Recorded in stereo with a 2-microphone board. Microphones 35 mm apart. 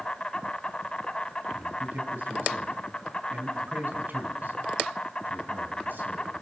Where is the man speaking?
60° right (ahead or behind), 4 m.